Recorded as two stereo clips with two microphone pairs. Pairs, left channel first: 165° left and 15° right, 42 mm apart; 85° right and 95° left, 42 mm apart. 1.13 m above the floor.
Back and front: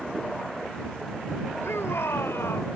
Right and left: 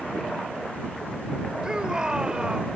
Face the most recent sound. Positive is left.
turn(degrees=165)